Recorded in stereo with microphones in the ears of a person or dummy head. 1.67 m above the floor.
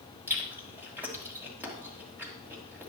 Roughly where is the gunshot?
No gunshot in this recording.